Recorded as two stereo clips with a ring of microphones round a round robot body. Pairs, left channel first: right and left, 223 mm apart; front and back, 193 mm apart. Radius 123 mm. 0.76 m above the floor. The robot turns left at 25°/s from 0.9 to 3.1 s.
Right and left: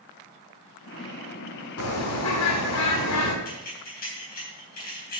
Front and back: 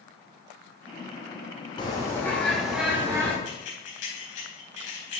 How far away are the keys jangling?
About 4.5 m.